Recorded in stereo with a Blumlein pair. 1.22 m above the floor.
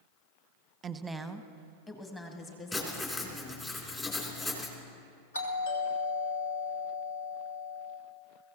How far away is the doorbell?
About 2.5 m.